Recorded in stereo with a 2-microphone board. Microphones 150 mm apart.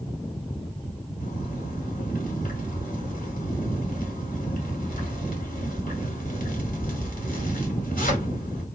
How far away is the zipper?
About 1.3 m.